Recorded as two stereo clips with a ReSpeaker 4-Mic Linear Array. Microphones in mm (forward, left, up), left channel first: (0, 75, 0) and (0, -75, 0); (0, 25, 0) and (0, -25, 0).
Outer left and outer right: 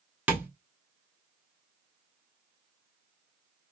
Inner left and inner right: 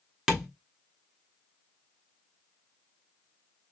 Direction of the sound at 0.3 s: 10° right (ahead or behind).